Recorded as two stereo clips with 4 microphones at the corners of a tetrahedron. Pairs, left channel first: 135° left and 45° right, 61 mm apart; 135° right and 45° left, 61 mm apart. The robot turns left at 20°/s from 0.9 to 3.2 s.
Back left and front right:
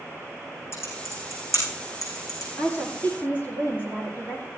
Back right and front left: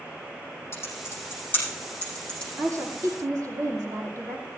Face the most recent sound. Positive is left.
turn(degrees=75)